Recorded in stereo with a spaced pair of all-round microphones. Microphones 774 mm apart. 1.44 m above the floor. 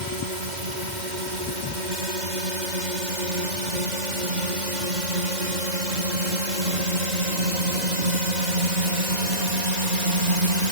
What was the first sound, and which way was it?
A drone, 70° right (ahead or behind).